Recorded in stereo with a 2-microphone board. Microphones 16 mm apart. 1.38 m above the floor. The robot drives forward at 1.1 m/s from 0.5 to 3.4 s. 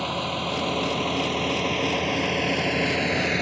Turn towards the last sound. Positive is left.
turn(degrees=5)  # may be behind; listen again after turning